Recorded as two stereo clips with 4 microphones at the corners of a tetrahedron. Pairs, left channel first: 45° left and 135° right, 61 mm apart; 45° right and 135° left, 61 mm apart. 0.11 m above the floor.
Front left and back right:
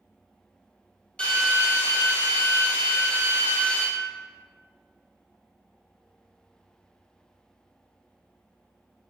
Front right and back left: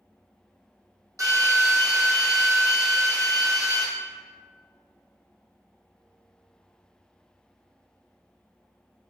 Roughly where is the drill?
Left.